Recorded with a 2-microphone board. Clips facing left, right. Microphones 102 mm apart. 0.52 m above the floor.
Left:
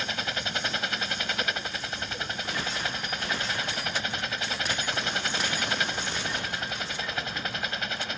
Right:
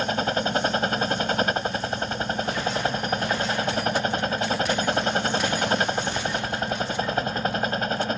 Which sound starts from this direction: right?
A helicopter, at 0.0 s.